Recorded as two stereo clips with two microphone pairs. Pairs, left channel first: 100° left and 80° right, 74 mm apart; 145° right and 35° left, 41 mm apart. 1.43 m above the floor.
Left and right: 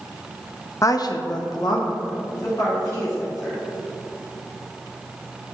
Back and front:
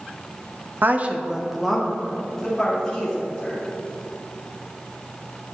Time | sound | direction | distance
0.8 | a woman speaking | 60° left | 0.6 m